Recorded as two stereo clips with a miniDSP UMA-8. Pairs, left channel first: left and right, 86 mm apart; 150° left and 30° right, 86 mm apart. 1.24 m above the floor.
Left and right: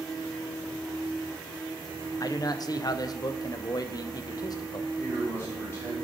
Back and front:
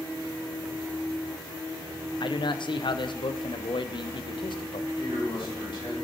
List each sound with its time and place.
2.2 s a man speaking: 130° left, 0.6 m
5.0 s a man speaking: 130° left, 4 m